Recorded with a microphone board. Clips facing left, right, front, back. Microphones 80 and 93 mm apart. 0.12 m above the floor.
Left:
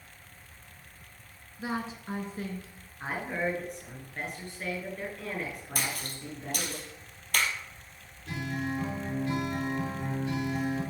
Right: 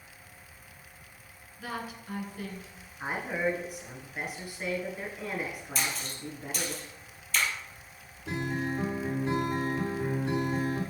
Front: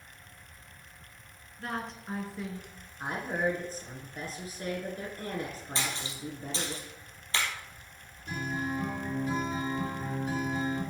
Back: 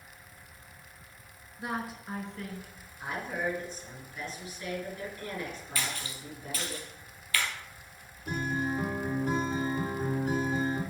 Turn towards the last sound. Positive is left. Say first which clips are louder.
# right 2 dB, back 2 dB
turn(degrees=-145)